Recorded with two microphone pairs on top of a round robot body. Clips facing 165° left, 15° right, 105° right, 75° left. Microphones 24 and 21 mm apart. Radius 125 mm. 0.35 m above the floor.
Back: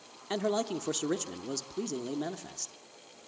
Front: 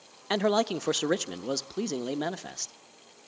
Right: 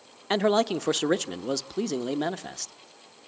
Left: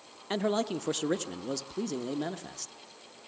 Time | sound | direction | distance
0.3 | a man speaking | 70° right | 1.1 m